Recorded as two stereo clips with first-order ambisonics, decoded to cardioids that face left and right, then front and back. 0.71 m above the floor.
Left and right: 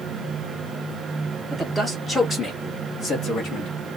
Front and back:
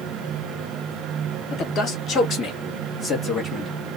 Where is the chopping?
I don't hear chopping.